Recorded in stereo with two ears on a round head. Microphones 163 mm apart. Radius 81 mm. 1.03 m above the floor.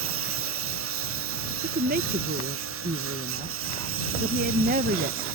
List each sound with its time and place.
0.0 s a lawn mower: 90° right; by 5.4 s 85° right
1.6 s a woman speaking: 45° right (ahead or behind)